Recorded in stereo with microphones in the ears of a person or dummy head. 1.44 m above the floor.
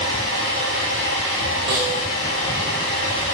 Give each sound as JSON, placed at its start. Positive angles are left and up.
{"t": 0.0, "sound": "a fan", "side_deg": 40, "distance_m": 3.5}
{"t": 1.7, "sound": "a snare drum", "side_deg": -20, "distance_m": 1.2}